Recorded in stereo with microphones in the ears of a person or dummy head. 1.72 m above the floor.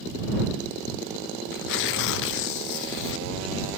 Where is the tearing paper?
70° left (ahead or behind).